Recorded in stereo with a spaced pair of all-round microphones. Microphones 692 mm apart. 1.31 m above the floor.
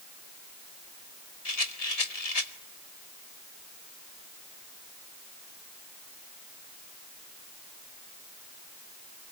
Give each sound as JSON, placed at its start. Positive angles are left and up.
{"t": 1.4, "sound": "a rattle", "side_deg": 55, "distance_m": 2.0}